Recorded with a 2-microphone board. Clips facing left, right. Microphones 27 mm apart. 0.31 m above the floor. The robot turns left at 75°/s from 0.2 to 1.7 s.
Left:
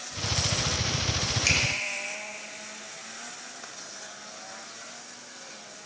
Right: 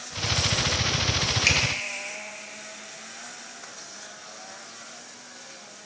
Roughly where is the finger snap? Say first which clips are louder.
Right 2 dB; right.